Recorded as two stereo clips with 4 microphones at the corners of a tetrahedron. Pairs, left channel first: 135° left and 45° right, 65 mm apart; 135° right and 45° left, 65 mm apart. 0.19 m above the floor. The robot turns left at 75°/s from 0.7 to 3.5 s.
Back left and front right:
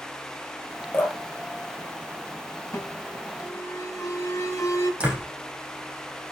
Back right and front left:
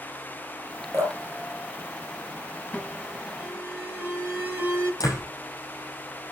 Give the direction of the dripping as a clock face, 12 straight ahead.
9 o'clock.